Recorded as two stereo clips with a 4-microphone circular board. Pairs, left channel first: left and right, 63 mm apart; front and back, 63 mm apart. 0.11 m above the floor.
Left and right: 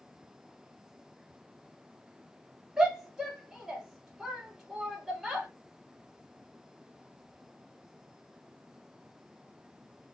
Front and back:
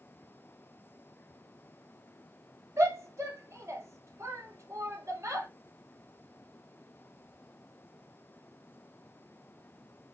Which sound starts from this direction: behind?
A shout, at 2.8 s.